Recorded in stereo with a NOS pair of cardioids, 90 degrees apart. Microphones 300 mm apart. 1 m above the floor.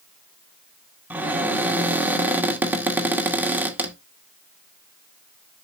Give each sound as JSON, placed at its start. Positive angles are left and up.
{"t": 1.1, "sound": "a cupboard door", "azimuth_deg": -5, "distance_m": 2.0}